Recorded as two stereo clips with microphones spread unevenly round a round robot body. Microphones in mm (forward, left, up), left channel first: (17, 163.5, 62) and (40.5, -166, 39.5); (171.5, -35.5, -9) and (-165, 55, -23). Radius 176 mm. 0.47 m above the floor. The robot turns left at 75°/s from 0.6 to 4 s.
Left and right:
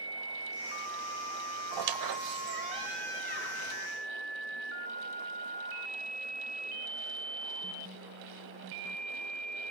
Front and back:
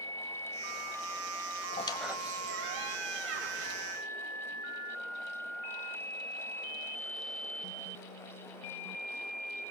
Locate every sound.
1.7 s a squeak: 80° right, 1.3 m; by 3.8 s 120° left, 1.3 m